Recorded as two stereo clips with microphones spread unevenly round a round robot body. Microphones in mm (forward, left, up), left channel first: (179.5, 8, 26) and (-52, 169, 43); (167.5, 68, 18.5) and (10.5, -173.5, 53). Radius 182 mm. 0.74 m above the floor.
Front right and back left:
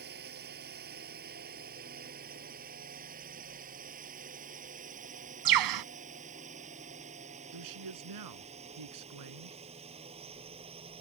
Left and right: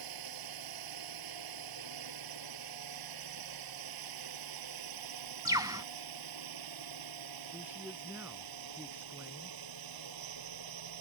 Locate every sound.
0.0 s a drone: 150° right; by 11.0 s 140° right
5.5 s a bird: 155° left
7.5 s a man speaking: 150° left